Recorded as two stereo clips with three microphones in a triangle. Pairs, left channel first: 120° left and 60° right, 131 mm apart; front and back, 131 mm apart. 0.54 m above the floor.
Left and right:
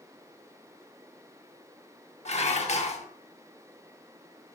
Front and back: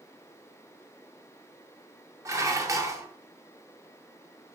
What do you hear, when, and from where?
2.2 s dishes clattering: 120° left, 0.5 m